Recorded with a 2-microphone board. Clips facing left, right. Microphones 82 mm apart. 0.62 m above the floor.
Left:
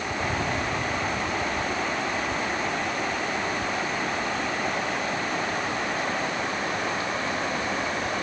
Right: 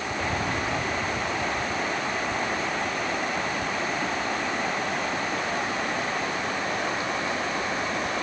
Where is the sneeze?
No sneeze in this recording.